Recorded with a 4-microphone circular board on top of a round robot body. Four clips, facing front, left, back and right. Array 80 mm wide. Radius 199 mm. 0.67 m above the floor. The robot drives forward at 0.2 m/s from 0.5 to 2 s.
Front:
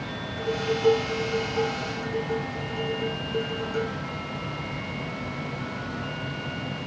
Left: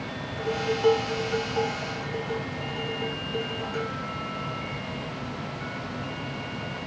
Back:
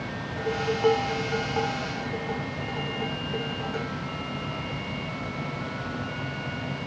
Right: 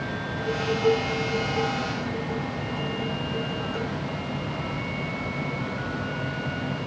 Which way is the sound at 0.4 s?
175° left.